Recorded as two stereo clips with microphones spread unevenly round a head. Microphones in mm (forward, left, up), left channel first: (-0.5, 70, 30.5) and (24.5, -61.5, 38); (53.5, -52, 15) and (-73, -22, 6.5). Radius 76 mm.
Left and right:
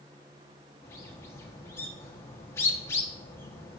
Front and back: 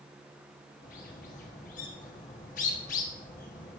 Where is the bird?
30° left, 1.4 m.